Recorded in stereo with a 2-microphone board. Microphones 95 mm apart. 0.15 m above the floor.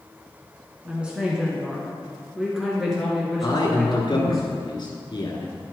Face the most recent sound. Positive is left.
turn(degrees=55)  # may be behind; listen again after turning